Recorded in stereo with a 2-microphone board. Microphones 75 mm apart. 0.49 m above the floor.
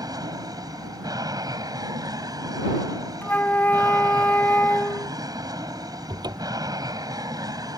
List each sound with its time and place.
0.0 s an aircraft: 65° right (ahead or behind)
3.2 s a flute: 25° left (ahead or behind)
6.1 s a cupboard door: 75° right (ahead or behind)